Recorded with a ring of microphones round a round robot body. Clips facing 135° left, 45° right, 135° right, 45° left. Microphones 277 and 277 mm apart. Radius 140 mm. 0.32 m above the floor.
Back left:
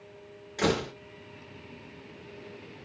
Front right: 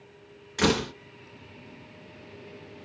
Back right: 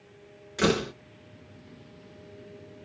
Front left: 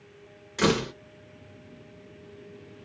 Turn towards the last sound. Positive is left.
turn(degrees=-35)